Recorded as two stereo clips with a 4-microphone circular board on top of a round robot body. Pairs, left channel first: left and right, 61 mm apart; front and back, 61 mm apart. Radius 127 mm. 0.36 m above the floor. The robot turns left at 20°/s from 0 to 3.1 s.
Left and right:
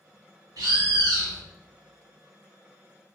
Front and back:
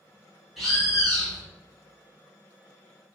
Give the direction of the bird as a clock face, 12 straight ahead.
3 o'clock.